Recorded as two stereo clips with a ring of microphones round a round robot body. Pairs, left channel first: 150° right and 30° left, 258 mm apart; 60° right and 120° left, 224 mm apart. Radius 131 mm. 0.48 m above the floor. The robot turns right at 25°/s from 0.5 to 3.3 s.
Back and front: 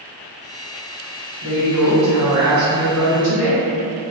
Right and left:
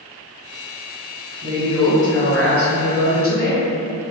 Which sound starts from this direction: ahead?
A woman speaking, at 1.4 s.